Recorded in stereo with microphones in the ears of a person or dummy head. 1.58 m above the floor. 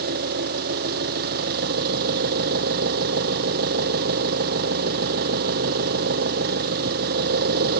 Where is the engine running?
60° right (ahead or behind).